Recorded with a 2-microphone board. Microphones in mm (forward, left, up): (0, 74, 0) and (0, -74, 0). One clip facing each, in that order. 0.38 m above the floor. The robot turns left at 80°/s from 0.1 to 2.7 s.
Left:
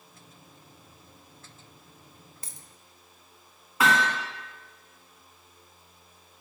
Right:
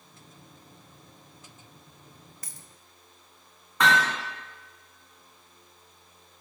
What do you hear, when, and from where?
2.4 s a dropped coin: 25° left (ahead or behind), 0.6 m; by 2.7 s 15° left (ahead or behind), 0.6 m
3.8 s hammering: 5° left (ahead or behind), 2 m